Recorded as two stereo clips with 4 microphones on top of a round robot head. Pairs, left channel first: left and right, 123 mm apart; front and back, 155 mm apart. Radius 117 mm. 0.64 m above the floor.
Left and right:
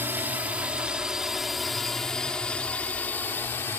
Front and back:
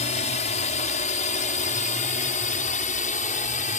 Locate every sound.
0.0 s a drone: 20° right; by 3.8 s 20° left